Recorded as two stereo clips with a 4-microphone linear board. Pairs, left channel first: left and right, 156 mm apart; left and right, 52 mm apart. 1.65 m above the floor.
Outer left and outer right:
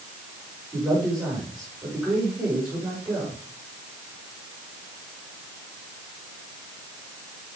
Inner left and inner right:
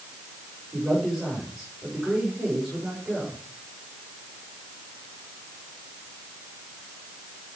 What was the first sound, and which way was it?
A man speaking, 20° right (ahead or behind).